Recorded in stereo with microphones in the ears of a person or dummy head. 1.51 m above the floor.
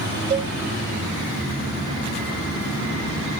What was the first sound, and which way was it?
A cowbell, 35° right (ahead or behind).